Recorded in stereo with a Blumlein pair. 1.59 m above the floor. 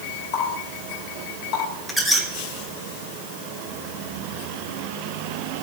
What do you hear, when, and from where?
0.3 s a running tap: 40° left, 4.5 m
1.9 s a squeak: 5° left, 1.6 m